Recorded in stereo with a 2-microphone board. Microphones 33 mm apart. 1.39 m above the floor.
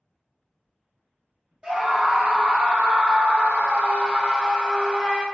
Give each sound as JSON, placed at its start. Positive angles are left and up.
{"t": 1.6, "sound": "a scream", "side_deg": -25, "distance_m": 1.1}